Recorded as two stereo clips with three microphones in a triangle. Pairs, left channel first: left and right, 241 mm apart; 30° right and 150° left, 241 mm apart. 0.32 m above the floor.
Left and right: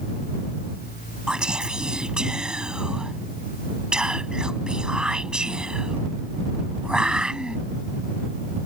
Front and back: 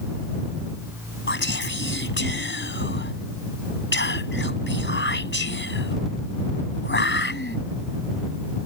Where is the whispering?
5° right.